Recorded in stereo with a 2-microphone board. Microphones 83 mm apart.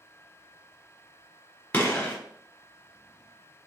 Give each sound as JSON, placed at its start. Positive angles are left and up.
{"t": 1.7, "sound": "a gunshot", "side_deg": 20, "distance_m": 1.3}